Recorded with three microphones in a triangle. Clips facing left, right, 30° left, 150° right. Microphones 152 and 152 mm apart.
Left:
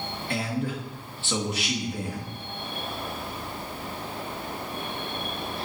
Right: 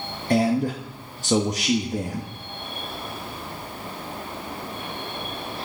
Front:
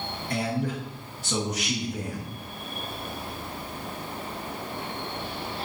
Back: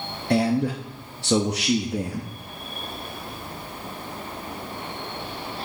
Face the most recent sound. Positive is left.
turn(degrees=-140)